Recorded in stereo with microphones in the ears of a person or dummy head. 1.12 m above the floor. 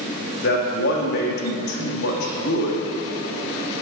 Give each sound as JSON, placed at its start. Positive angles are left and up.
{"t": 0.4, "sound": "a man speaking", "side_deg": 60, "distance_m": 1.8}